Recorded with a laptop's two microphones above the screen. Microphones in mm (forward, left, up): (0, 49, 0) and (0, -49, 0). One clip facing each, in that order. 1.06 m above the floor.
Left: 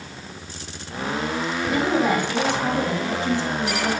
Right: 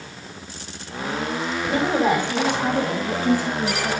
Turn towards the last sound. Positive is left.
turn(degrees=0)  # may be behind; listen again after turning